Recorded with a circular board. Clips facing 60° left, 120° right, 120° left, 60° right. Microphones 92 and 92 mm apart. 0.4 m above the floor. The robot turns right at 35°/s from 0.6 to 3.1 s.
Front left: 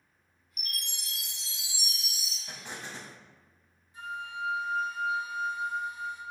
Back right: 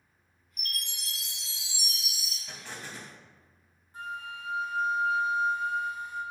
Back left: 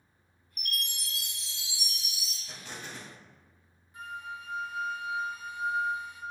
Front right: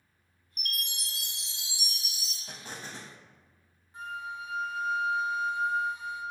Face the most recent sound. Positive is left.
turn(degrees=-105)